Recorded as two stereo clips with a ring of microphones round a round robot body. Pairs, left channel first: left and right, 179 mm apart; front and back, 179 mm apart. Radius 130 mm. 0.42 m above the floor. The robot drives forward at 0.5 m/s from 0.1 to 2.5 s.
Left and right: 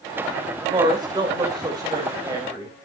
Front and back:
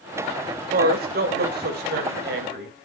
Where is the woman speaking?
155° right, 2 m; by 2.8 s 165° right, 3 m.